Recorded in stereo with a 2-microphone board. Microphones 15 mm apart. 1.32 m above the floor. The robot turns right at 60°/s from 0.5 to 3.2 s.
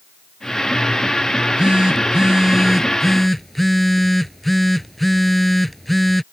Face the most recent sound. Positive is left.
turn(degrees=10)